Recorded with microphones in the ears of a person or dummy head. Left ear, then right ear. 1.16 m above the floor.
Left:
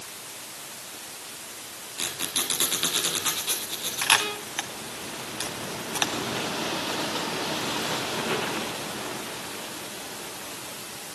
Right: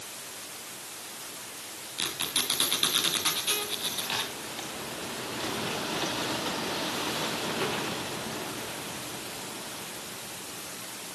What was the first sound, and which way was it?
A squeak, 15° right (ahead or behind).